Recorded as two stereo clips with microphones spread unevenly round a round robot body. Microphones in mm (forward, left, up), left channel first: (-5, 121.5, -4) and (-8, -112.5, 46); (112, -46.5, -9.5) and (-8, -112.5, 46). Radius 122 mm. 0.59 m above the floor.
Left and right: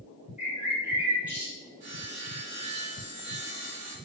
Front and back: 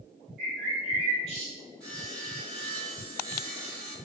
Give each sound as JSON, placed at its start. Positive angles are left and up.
{"t": 0.4, "sound": "a bird", "azimuth_deg": 180, "distance_m": 1.2}
{"t": 1.8, "sound": "sawing", "azimuth_deg": -40, "distance_m": 1.8}